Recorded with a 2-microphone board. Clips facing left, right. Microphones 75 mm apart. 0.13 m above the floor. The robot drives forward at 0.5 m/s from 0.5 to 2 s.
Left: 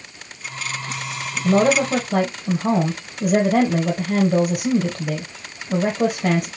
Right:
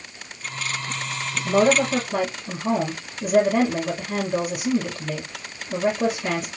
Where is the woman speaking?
55° left (ahead or behind), 2.5 m.